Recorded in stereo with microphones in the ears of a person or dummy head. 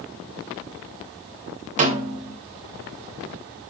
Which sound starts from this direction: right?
A snare drum, at 1.8 s.